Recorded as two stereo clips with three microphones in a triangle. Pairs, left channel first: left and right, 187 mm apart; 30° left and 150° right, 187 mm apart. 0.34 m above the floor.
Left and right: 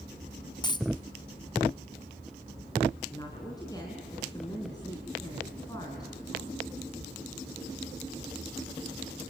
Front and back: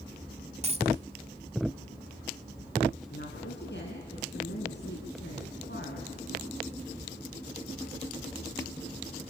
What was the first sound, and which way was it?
A dropped coin, 155° left.